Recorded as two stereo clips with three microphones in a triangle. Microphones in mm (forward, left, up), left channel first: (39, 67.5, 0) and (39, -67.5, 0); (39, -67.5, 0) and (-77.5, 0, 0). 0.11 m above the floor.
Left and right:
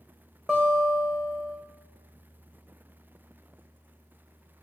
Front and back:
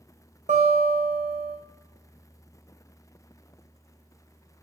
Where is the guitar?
175° left, 2.5 m.